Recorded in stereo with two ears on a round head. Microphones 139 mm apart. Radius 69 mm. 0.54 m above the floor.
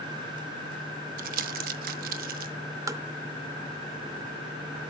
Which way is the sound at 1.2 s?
60° right (ahead or behind).